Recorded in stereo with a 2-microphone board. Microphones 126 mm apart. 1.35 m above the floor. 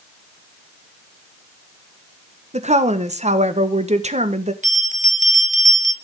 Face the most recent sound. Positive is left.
turn(degrees=-80)